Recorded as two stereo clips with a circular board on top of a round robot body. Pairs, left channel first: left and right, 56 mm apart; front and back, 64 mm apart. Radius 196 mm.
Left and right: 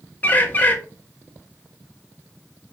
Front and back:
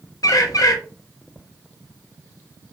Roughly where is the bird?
Ahead left.